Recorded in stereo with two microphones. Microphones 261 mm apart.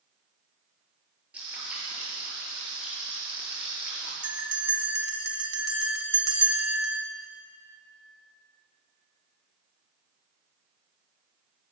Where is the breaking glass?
No breaking glass in this recording.